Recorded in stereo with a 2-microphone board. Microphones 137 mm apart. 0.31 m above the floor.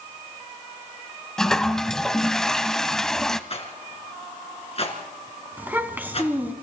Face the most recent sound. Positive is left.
turn(degrees=-15)  # may be behind; listen again after turning